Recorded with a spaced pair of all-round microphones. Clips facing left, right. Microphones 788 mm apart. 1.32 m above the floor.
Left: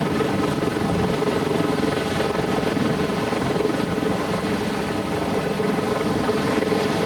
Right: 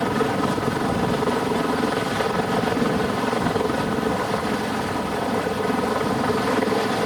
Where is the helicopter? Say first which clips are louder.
Left 1 dB; 60° left (ahead or behind).